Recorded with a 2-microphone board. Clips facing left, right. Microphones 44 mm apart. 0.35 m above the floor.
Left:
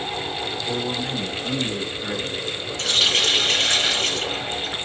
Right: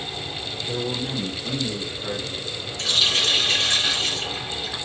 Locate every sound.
0.7 s a man speaking: 60° left (ahead or behind), 2.5 m; by 2.7 s 40° left (ahead or behind), 4 m
2.8 s a running tap: 60° left (ahead or behind), 1.4 m